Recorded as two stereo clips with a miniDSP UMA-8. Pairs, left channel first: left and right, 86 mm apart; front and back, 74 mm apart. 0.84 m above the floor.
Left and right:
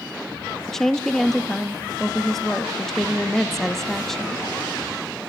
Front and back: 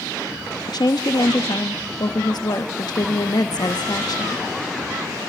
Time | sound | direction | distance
0.7 | a woman speaking | 5° left | 1.0 m